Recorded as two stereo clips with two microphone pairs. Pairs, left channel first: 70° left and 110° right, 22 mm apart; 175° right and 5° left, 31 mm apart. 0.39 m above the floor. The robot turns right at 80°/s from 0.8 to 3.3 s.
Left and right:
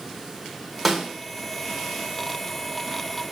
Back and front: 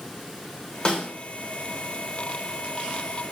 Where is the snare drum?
155° left, 1.1 m; by 1.1 s 175° left, 1.1 m.